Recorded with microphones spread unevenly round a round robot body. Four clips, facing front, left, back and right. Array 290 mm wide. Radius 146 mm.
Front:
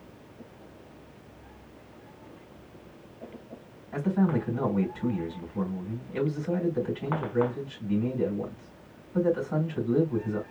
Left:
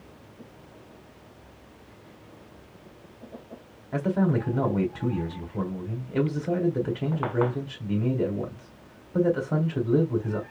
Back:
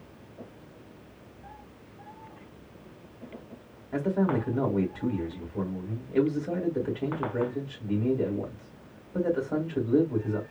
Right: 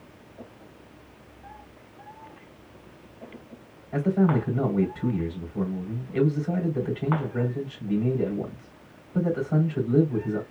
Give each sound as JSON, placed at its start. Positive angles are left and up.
{"t": 3.9, "sound": "a man speaking", "azimuth_deg": 85, "distance_m": 3.0}